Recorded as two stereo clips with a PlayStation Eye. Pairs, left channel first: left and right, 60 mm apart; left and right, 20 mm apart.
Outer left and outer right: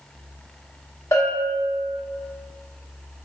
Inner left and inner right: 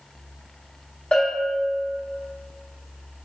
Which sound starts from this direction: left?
A bell, at 1.1 s.